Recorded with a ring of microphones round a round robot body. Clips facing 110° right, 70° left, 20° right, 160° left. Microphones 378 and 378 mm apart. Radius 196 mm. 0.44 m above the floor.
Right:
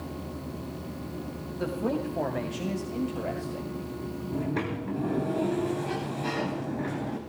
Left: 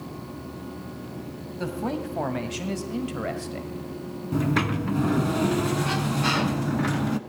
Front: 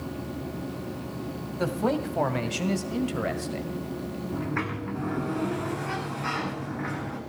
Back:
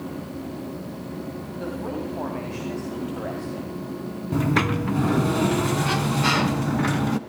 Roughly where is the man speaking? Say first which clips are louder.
Even, front 4 dB; ahead.